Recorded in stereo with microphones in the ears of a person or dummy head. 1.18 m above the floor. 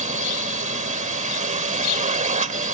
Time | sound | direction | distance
0.0 | a drone | 40° right (ahead or behind) | ?